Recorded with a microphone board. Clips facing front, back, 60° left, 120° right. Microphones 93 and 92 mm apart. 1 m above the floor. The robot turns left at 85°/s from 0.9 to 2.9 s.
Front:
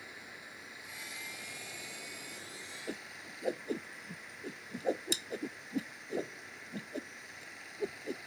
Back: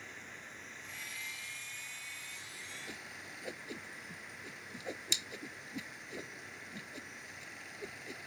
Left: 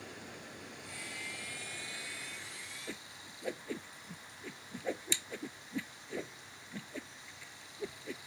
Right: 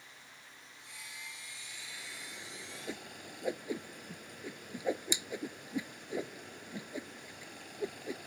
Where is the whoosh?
45° right.